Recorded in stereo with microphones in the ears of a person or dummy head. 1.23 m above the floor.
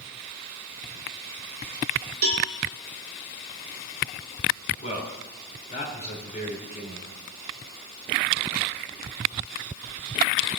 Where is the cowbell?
75° right (ahead or behind), 1.7 m.